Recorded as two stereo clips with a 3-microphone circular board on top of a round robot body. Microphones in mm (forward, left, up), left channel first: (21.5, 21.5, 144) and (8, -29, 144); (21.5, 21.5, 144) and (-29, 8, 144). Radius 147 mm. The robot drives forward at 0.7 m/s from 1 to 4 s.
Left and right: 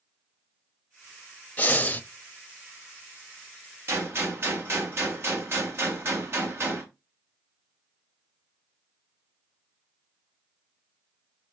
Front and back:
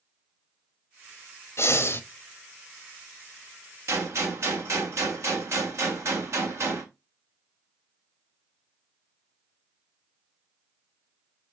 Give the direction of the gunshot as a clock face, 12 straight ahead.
5 o'clock.